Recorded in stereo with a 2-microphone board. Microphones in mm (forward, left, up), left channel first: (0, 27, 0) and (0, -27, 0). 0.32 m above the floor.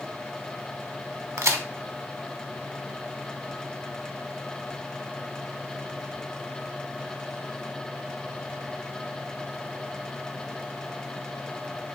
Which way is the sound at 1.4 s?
60° right (ahead or behind).